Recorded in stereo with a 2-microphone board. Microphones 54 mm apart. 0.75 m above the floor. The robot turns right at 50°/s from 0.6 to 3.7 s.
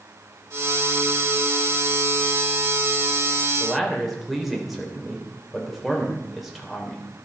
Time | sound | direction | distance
3.6 | a man speaking | 5° right (ahead or behind) | 3 m